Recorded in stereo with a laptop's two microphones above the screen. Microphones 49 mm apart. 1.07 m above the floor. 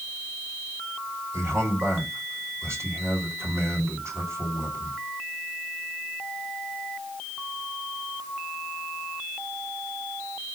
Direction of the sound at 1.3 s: 55° right (ahead or behind).